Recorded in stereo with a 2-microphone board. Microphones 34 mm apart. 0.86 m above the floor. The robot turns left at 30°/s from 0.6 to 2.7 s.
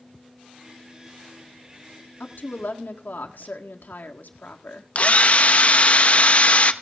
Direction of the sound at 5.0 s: 45° left (ahead or behind).